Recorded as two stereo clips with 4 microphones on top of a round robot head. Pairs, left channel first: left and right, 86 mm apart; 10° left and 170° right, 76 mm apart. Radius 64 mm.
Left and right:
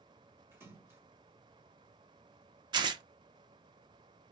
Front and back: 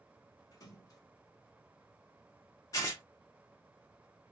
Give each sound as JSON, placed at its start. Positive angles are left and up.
{"t": 0.5, "sound": "a splash", "azimuth_deg": -30, "distance_m": 1.3}
{"t": 2.7, "sound": "tearing paper", "azimuth_deg": -50, "distance_m": 0.5}